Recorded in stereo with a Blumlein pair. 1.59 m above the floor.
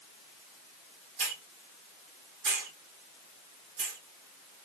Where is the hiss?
40° right, 1.3 m.